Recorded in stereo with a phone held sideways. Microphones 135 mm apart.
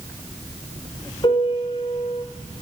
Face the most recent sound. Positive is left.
turn(degrees=40)  # may be behind; listen again after turning